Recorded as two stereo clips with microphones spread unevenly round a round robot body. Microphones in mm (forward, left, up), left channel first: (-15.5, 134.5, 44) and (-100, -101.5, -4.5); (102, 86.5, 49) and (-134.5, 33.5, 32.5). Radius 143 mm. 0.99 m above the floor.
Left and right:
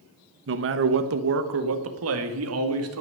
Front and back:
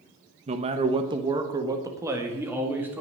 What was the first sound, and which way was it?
A man speaking, 110° right.